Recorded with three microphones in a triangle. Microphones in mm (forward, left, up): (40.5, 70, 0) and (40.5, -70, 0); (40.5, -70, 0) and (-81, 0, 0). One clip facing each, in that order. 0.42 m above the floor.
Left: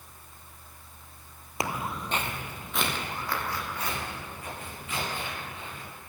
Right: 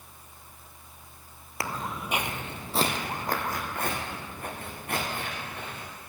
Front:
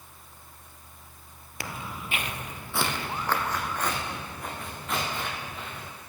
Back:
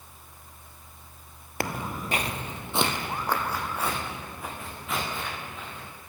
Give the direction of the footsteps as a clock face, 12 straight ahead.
7 o'clock.